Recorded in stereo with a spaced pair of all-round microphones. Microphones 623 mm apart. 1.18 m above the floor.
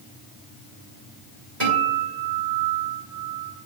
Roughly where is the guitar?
Right.